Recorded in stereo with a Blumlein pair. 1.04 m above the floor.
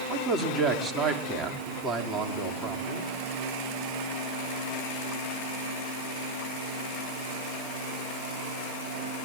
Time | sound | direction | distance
0.1 | a man speaking | 15° right | 2.5 m